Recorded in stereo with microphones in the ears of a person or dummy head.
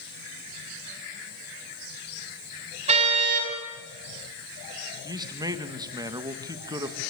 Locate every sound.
2.9 s a car horn: 40° right (ahead or behind), 5 m
5.0 s a man speaking: 20° right (ahead or behind), 1.3 m